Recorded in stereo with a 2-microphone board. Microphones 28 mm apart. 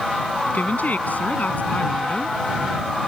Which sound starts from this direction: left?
A woman speaking, at 0.5 s.